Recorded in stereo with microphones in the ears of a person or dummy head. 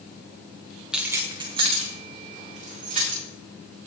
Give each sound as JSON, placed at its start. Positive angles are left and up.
{"t": 0.9, "sound": "keys jangling", "side_deg": 0, "distance_m": 0.6}